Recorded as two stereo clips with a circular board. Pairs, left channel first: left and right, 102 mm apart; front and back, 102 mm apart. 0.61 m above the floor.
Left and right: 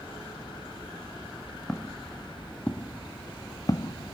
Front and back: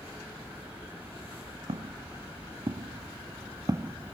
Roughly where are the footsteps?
Behind.